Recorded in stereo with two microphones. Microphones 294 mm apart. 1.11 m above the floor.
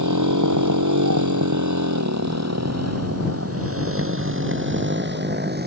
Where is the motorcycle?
85° right; by 5.7 s 35° right (ahead or behind).